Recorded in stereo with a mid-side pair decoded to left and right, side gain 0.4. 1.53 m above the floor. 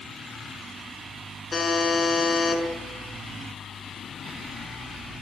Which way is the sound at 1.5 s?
35° left.